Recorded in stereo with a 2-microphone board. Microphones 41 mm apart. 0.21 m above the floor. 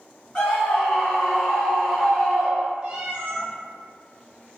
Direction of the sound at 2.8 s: 25° right (ahead or behind).